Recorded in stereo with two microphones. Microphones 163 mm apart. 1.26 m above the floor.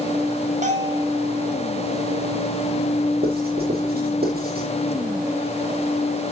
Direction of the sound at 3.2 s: 75° right (ahead or behind).